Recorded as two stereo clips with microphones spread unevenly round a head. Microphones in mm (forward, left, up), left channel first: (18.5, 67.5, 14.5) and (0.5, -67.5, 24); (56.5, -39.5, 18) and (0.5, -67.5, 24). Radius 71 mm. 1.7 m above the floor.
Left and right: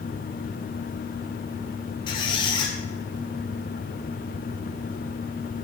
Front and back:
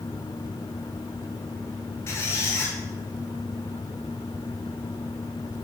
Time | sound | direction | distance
2.1 | a squeak | 50° left | 0.8 m